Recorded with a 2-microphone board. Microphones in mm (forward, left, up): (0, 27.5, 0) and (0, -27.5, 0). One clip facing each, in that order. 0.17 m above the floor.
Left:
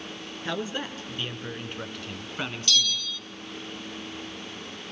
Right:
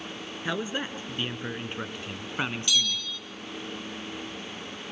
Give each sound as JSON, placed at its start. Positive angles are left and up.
{"t": 0.5, "sound": "a man speaking", "side_deg": -15, "distance_m": 3.0}
{"t": 2.7, "sound": "a bell", "side_deg": -15, "distance_m": 0.8}